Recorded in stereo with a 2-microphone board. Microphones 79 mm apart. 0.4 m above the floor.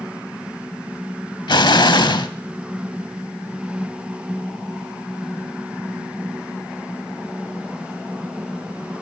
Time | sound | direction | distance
1.5 | an explosion | 70° left (ahead or behind) | 0.7 m